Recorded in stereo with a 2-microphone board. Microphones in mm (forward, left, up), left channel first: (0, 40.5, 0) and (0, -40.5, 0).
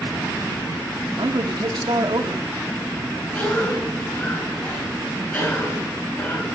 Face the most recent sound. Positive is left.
turn(degrees=20)  # may be behind; listen again after turning